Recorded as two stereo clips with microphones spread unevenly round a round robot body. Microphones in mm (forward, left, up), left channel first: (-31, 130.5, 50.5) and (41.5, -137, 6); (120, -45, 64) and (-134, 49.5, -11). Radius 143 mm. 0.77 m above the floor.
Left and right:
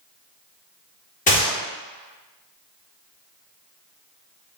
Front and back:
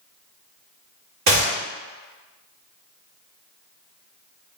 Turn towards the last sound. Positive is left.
turn(degrees=170)